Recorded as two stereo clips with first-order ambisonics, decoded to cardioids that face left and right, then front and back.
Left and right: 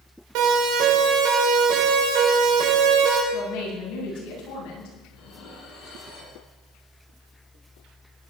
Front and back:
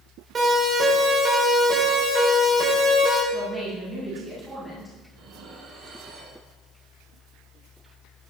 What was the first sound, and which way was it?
A siren, 110° right.